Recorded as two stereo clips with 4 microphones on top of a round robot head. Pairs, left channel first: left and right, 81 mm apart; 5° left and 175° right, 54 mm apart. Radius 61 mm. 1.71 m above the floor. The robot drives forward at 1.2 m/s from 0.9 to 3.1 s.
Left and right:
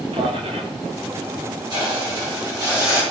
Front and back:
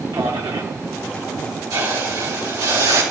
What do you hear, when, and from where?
0.1 s a man speaking: 135° right, 1.8 m
1.7 s a hiss: 135° right, 4 m; by 3.0 s 150° right, 5.5 m